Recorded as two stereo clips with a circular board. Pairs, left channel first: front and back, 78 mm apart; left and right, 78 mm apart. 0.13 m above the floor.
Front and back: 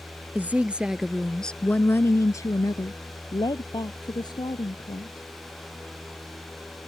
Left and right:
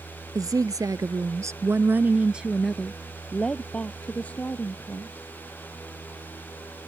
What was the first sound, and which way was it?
A woman speaking, 115° right.